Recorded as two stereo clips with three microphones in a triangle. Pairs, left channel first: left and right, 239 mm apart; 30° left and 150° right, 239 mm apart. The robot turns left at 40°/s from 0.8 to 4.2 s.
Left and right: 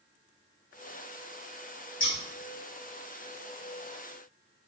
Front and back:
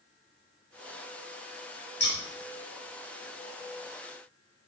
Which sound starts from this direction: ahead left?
Scissors, at 2.0 s.